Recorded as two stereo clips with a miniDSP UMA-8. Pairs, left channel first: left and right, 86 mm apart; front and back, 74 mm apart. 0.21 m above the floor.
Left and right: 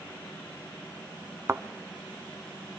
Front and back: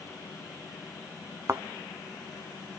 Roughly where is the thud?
Behind right.